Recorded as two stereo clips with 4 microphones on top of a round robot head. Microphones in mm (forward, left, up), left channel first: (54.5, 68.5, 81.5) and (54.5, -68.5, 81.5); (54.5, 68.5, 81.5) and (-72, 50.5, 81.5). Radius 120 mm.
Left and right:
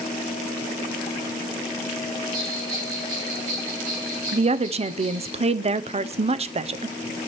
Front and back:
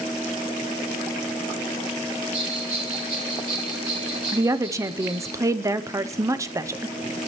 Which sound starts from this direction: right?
A woman speaking, at 4.3 s.